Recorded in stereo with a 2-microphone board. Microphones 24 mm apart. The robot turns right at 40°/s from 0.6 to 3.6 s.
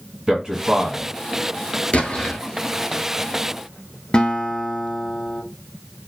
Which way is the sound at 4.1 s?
40° left (ahead or behind).